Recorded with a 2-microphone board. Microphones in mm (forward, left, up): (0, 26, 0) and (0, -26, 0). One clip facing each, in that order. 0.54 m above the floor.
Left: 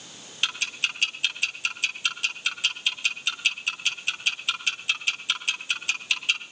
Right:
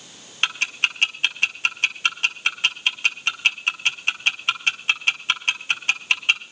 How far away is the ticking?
About 2 m.